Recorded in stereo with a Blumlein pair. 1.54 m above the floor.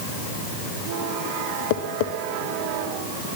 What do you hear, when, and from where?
1.7 s tapping: 50° left, 1.2 m